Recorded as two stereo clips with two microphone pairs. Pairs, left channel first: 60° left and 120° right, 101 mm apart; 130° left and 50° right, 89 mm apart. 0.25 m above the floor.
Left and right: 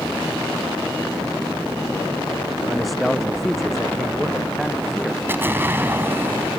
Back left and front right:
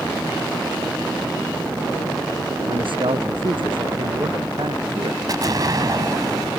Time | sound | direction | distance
2.7 | a man speaking | 30° right | ?
5.3 | an explosion | 60° right | ?